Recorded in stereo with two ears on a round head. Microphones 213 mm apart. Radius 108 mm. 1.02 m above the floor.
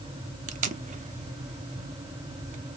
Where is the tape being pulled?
30° right (ahead or behind), 0.6 m.